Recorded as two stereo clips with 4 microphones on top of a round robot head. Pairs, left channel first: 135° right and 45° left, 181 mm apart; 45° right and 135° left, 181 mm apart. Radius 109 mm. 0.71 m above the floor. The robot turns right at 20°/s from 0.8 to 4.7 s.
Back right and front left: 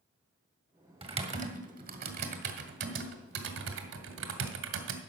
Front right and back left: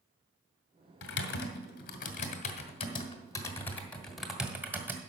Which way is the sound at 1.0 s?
20° right.